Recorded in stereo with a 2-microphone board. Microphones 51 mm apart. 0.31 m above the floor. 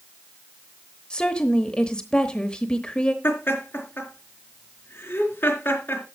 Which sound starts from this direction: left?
Laughter, at 3.2 s.